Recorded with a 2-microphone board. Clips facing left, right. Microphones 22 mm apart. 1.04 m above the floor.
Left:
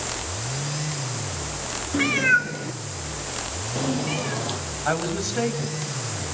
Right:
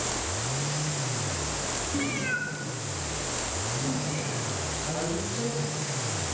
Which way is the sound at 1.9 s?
40° left (ahead or behind).